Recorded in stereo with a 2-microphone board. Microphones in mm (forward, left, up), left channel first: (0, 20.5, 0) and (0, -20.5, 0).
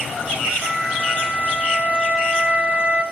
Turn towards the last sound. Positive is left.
turn(degrees=-30)  # may be behind; listen again after turning